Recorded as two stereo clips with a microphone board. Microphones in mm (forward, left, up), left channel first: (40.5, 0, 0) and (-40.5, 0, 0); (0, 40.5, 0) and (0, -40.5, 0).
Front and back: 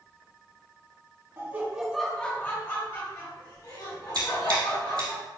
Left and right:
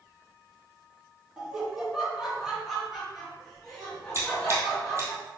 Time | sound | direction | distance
1.4 | laughter | 165° right | 1.1 m
4.1 | scissors | 145° right | 1.9 m